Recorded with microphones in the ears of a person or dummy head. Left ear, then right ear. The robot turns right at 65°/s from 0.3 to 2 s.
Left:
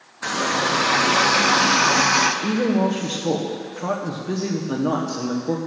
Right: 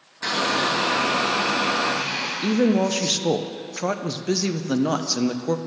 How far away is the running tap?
About 0.7 m.